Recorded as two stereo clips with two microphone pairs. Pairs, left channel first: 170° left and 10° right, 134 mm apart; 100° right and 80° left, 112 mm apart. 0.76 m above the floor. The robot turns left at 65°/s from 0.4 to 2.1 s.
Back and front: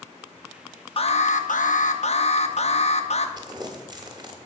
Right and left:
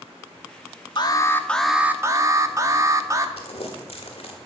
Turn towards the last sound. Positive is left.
turn(degrees=-65)